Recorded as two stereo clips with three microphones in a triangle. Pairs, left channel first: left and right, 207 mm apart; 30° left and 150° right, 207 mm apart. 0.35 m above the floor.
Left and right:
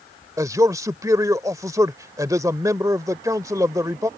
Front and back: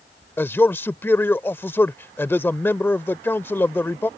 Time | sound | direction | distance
0.4 | a man speaking | 35° right | ?